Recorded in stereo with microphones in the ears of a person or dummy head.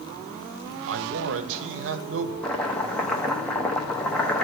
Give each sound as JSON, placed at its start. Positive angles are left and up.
{"t": 0.9, "sound": "a man speaking", "side_deg": -65, "distance_m": 0.7}
{"t": 2.4, "sound": "chopping", "side_deg": 10, "distance_m": 0.8}